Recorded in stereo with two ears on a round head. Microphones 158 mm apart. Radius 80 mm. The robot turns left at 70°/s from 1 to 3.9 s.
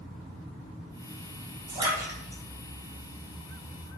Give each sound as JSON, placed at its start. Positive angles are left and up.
{"t": 1.7, "sound": "a splash", "side_deg": -30, "distance_m": 1.9}